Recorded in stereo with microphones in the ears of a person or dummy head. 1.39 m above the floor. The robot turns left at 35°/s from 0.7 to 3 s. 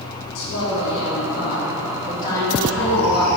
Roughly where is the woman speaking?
Left.